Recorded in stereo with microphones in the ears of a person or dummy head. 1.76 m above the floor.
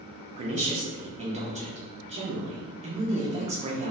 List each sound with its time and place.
0.4 s a woman speaking: 40° right (ahead or behind), 0.7 m